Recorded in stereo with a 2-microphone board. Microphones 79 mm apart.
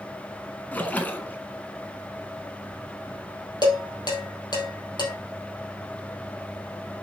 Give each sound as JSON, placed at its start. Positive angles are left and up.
{"t": 0.7, "sound": "a splash", "side_deg": 20, "distance_m": 1.0}
{"t": 3.6, "sound": "dishes clattering", "side_deg": 55, "distance_m": 3.0}